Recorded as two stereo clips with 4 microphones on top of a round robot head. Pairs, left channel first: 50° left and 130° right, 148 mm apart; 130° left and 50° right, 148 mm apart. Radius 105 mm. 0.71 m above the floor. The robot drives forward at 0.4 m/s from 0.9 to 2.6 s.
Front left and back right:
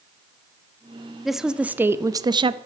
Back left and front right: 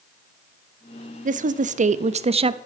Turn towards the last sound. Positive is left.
turn(degrees=-90)